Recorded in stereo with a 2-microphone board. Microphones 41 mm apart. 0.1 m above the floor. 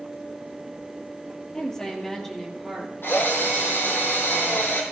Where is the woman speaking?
20° left (ahead or behind), 2.5 m; by 2.9 s centre (ahead or behind), 2.5 m.